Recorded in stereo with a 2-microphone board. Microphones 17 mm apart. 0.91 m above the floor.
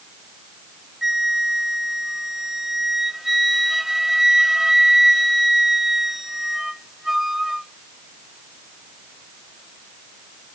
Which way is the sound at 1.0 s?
15° right (ahead or behind).